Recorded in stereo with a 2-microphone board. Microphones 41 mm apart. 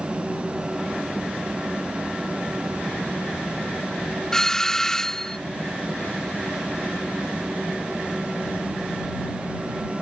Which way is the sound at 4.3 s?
10° left (ahead or behind).